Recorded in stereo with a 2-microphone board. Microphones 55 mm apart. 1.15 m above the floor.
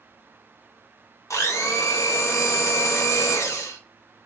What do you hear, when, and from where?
1.3 s a blender: 70° left (ahead or behind), 0.9 m